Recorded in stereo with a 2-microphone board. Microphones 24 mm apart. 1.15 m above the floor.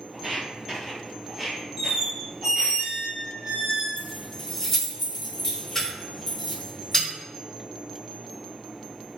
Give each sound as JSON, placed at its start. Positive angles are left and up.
{"t": 0.1, "sound": "footsteps", "side_deg": -15, "distance_m": 1.5}
{"t": 1.8, "sound": "a squeak", "side_deg": -25, "distance_m": 0.6}
{"t": 4.0, "sound": "keys jangling", "side_deg": 15, "distance_m": 1.0}